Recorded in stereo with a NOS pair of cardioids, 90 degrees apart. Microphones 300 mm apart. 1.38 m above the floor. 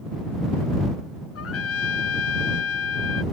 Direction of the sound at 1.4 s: 50° left.